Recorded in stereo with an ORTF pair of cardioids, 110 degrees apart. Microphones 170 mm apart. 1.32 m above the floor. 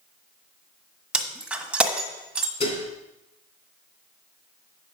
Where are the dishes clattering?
40° left, 3 m.